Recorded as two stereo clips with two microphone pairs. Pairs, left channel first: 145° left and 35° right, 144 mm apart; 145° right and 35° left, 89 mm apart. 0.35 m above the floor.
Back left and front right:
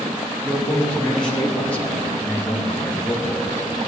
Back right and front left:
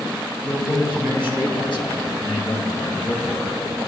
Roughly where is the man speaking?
Behind right.